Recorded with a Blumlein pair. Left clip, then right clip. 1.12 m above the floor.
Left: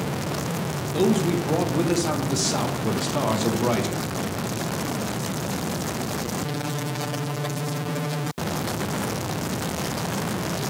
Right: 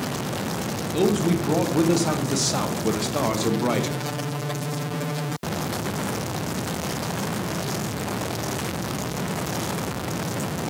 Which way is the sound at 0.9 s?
5° right.